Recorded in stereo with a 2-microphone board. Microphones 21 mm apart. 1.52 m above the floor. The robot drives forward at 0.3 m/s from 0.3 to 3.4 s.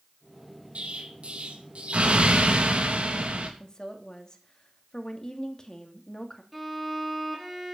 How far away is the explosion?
About 3 m.